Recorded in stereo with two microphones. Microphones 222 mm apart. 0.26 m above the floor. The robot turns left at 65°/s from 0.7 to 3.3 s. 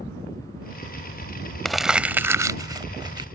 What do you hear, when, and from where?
1.6 s crumpling: centre (ahead or behind); by 3.3 s 20° right (ahead or behind)